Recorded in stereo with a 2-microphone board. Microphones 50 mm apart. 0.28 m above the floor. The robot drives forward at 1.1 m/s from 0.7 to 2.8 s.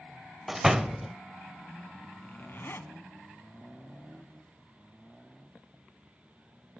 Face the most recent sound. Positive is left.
turn(degrees=55)  # may be behind; listen again after turning